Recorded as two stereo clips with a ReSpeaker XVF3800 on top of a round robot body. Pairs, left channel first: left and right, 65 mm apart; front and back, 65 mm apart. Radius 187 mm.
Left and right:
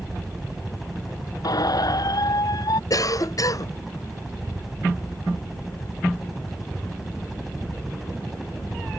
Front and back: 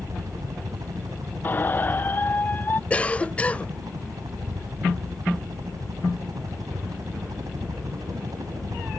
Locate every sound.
0.0 s a helicopter: 175° right
1.4 s a squeak: 65° left
2.9 s a cough: 70° left